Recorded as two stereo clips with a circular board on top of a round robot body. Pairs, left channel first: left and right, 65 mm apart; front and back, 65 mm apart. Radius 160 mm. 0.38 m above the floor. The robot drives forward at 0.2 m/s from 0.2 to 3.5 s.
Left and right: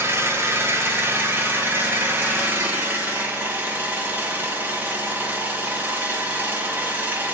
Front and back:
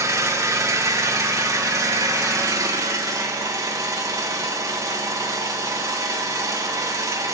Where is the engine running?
140° right, 2 m; by 7.3 s 150° right, 2.5 m.